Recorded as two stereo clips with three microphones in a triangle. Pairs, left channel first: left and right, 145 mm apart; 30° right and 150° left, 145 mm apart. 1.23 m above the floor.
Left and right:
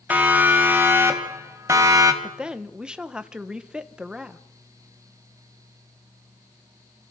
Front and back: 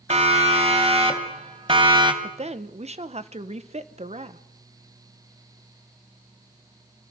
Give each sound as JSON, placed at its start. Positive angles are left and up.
{"t": 0.1, "sound": "a siren", "azimuth_deg": -170, "distance_m": 3.5}
{"t": 2.2, "sound": "a woman speaking", "azimuth_deg": -175, "distance_m": 1.0}